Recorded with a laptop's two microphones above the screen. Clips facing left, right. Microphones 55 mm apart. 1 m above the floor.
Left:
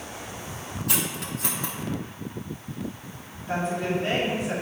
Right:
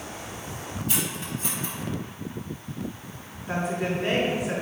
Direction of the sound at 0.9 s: 80° left.